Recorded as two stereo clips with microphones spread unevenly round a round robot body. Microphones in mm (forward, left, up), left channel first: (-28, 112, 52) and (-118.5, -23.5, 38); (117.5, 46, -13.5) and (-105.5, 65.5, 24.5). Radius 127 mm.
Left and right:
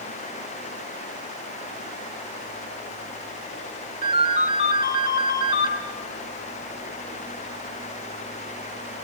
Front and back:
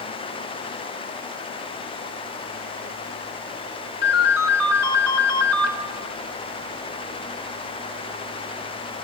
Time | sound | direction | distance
4.0 | a ringtone | 60° right | 2.5 m